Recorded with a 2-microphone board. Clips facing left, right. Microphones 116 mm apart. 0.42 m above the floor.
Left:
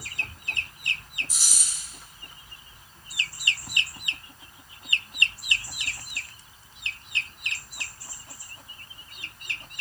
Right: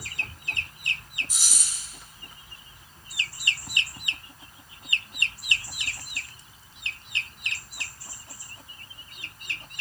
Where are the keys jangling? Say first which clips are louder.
Right 1 dB; 55° right (ahead or behind), 1.2 m.